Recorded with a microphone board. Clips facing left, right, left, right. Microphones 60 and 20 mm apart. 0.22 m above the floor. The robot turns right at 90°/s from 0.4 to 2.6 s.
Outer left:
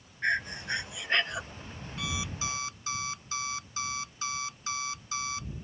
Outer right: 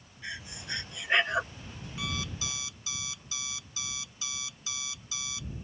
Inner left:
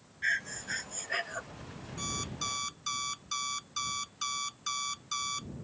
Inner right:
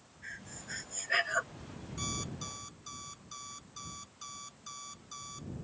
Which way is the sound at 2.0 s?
5° right.